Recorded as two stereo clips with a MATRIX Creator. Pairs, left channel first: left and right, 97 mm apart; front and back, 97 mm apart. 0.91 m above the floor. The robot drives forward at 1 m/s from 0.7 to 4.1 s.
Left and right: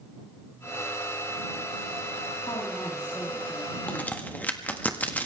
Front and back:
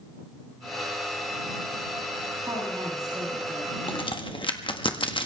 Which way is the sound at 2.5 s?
125° left.